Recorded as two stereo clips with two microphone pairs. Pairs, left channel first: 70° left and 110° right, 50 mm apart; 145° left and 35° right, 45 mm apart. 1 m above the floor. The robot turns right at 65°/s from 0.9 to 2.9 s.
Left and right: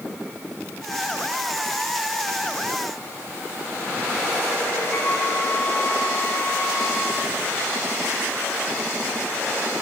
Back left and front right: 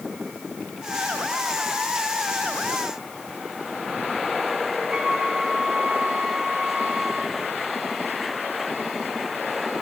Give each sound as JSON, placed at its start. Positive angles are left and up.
{"t": 4.9, "sound": "a flute", "azimuth_deg": 30, "distance_m": 4.0}